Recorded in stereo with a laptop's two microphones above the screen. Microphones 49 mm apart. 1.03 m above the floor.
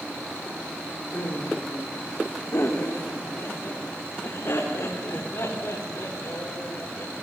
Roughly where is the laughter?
Left.